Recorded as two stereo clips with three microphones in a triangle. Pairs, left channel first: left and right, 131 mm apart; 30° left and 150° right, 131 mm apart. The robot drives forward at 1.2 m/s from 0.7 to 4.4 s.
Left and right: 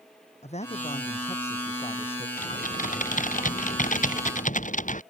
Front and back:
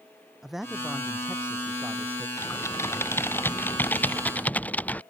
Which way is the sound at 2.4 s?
100° left.